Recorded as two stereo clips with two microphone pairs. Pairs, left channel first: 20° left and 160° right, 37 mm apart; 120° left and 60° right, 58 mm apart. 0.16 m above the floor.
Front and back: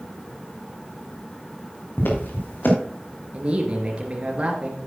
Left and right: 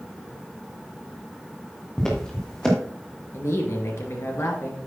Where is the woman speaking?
145° left, 2.5 m.